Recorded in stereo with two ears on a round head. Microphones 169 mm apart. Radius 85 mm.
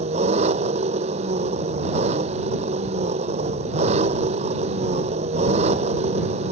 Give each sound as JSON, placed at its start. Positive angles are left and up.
{"t": 0.0, "sound": "an engine running", "side_deg": -35}